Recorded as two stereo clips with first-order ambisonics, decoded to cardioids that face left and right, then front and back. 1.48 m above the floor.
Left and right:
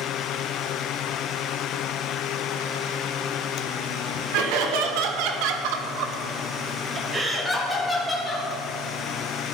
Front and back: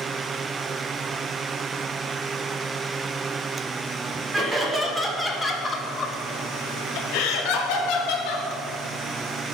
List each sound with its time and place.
4.3 s laughter: 105° right, 1.7 m; by 8.5 s 10° left, 1.7 m